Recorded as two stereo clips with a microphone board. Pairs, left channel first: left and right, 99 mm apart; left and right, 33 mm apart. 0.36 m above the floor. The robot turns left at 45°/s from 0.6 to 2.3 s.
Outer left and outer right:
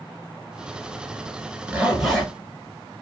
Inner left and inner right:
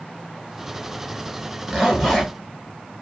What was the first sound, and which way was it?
A zipper, 15° right (ahead or behind).